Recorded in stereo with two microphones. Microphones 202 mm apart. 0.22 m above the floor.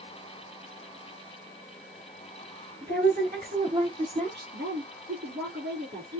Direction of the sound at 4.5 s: 60° right (ahead or behind).